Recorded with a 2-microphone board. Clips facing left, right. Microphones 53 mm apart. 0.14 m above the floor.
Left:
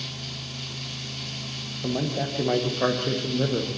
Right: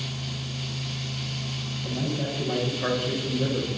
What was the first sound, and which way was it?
A man speaking, 65° left (ahead or behind).